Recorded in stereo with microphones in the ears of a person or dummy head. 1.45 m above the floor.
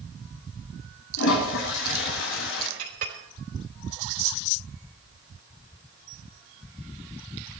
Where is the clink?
55° right (ahead or behind), 3 m.